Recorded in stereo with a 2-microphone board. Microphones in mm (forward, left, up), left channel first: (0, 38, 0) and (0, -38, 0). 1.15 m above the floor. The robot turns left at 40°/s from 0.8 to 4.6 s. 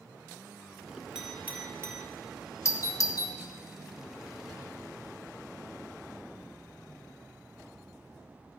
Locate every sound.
1.1 s a clink: 10° right (ahead or behind), 1.2 m; by 2.0 s 40° right (ahead or behind), 1.2 m
2.6 s a doorbell: 40° left (ahead or behind), 0.6 m; by 3.3 s 55° left (ahead or behind), 0.6 m